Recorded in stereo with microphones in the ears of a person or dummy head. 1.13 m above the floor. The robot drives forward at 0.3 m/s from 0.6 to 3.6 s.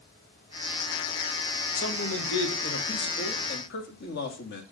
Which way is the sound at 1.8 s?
80° left.